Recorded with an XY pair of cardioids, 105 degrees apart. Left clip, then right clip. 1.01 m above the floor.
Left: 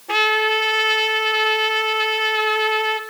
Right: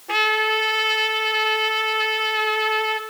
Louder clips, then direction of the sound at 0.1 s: Left 2 dB; 5° left.